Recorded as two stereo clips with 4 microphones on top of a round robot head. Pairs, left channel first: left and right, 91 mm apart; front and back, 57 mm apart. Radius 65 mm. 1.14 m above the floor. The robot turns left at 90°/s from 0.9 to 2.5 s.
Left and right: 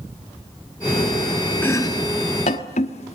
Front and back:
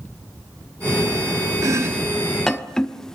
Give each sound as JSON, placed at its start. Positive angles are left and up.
{"t": 1.6, "sound": "chopping", "azimuth_deg": 160, "distance_m": 1.1}